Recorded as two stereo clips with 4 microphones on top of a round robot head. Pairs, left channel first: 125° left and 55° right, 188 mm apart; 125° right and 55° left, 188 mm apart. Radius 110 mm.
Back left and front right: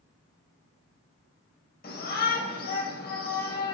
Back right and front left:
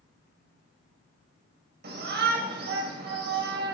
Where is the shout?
90° left, 3 m.